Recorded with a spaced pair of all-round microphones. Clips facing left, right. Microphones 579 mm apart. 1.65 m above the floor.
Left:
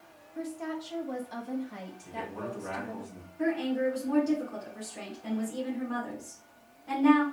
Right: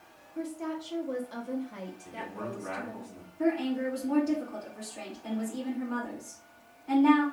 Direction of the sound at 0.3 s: 20° left (ahead or behind).